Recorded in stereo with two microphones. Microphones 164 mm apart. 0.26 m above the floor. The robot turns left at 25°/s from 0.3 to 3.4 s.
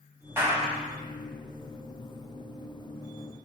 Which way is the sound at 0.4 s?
15° right (ahead or behind).